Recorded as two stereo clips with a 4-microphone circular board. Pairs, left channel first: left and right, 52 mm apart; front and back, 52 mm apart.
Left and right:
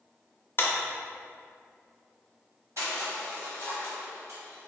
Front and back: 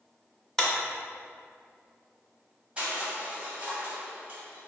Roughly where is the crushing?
Behind right.